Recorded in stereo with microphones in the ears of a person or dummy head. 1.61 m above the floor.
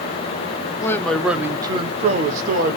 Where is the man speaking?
20° left (ahead or behind), 0.8 m; by 2.8 s 55° right (ahead or behind), 1.2 m.